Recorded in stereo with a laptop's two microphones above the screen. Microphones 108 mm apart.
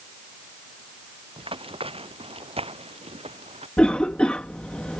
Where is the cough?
10° left (ahead or behind).